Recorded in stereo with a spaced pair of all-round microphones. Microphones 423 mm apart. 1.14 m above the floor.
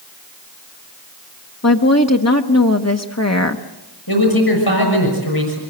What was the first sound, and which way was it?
A woman speaking, 40° left (ahead or behind).